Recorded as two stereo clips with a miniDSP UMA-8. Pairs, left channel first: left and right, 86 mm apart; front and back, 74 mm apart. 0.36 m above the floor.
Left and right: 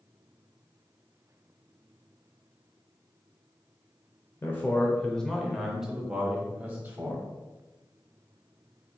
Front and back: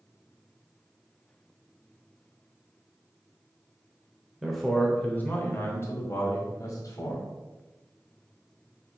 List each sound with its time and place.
4.4 s a man speaking: 95° left, 1.0 m; by 7.2 s 25° right, 1.8 m